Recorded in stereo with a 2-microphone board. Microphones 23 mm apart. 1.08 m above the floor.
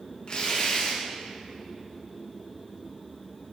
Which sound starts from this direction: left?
Tearing paper, at 0.3 s.